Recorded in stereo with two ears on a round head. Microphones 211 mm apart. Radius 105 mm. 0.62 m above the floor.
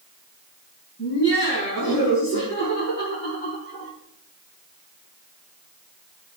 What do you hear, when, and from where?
1.0 s laughter: 45° left (ahead or behind), 6.5 m; by 3.9 s 35° left (ahead or behind), 8 m